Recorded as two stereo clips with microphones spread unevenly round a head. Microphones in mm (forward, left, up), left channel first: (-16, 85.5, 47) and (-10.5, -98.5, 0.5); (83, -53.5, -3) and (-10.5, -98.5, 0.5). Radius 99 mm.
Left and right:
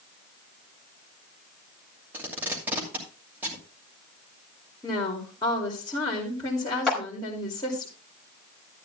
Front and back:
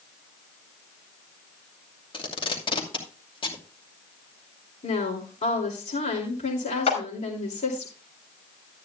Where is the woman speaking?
20° left, 2.5 m.